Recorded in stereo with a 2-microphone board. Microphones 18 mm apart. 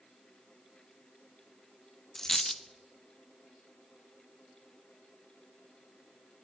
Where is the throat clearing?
I don't hear throat clearing.